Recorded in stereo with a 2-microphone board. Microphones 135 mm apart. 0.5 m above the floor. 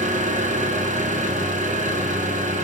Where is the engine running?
70° right (ahead or behind), 1.2 m.